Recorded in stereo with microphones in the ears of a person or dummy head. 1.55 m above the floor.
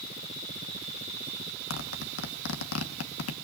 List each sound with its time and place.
1.7 s a zipper: 85° left, 2.0 m